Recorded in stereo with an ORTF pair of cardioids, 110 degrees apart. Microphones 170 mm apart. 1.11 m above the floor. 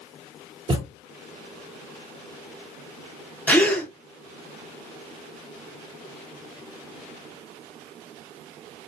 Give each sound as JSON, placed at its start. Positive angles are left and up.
{"t": 0.7, "sound": "a thud", "azimuth_deg": -30, "distance_m": 1.2}
{"t": 3.5, "sound": "a gasp", "azimuth_deg": 10, "distance_m": 0.8}